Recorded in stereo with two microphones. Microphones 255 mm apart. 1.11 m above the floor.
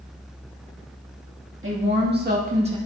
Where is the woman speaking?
50° right (ahead or behind), 2 m; by 2.8 s 20° right (ahead or behind), 1.5 m.